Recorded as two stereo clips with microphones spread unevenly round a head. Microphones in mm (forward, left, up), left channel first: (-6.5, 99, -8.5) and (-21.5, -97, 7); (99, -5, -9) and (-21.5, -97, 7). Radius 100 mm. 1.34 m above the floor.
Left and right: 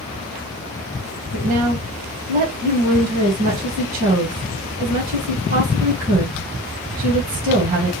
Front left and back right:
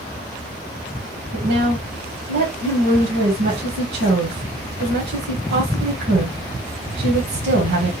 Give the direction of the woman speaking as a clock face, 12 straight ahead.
4 o'clock.